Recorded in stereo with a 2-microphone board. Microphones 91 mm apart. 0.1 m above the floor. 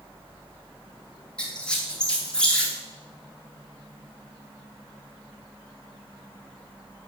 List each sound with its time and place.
1.4 s a squeak: 10° left (ahead or behind), 1.0 m